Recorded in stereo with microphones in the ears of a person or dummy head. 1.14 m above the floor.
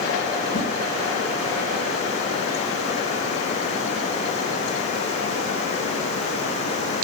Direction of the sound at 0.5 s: 45° left (ahead or behind).